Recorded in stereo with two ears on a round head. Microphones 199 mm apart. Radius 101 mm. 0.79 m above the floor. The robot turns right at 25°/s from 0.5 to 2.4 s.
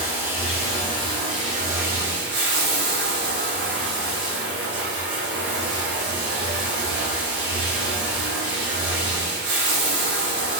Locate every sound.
0.0 s running water: 165° right, 1.2 m; by 10.6 s 120° right, 1.2 m